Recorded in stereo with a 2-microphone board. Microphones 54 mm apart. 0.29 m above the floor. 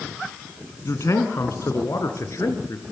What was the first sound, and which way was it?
A man speaking, 70° left (ahead or behind).